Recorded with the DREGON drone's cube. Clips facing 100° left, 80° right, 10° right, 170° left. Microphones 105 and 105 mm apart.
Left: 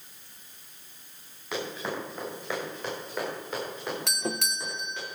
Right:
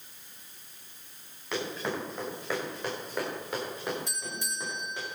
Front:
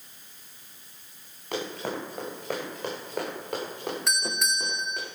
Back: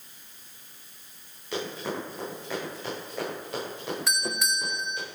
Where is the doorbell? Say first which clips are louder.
Left 7 dB, back 1 dB; 80° left, 0.8 m.